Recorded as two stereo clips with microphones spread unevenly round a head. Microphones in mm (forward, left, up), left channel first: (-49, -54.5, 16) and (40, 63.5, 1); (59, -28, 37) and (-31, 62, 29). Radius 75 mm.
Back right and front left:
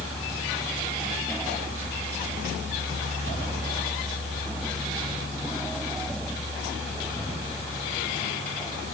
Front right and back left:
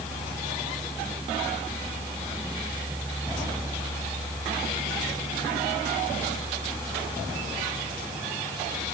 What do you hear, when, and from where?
Only background noise.